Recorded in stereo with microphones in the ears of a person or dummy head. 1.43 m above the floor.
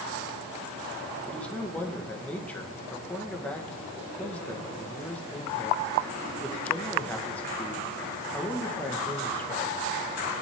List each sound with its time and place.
1.3 s a man speaking: 10° left (ahead or behind), 1.5 m